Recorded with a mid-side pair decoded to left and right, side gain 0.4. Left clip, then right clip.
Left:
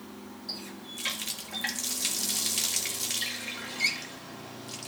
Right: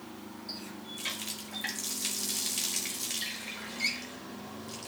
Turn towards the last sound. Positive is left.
turn(degrees=25)